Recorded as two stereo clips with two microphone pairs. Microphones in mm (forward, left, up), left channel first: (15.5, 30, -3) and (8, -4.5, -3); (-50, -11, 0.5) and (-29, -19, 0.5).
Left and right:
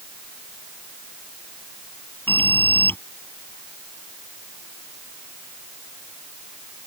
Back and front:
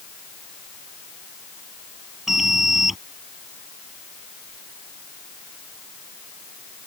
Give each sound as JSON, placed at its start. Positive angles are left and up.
{"t": 2.3, "sound": "an alarm", "azimuth_deg": 60}